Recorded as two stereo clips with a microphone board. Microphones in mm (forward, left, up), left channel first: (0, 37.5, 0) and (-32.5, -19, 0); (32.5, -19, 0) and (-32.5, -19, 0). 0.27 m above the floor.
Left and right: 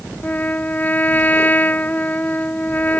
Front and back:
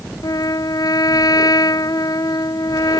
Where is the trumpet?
Straight ahead.